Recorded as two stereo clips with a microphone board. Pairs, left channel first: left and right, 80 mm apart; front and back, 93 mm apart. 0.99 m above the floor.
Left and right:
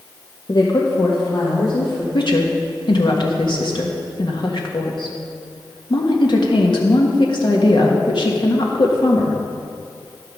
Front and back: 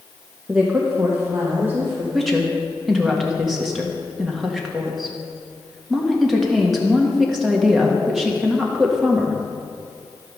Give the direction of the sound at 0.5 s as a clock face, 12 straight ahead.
9 o'clock.